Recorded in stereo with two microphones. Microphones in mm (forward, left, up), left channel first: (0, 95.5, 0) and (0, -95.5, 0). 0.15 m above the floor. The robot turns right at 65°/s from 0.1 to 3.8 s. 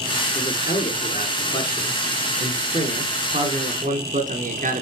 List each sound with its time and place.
0.3 s a man speaking: 70° left, 2 m; by 4.8 s 65° right, 2 m